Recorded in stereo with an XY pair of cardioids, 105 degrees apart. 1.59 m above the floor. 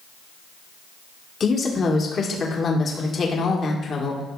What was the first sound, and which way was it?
A woman speaking, 45° left.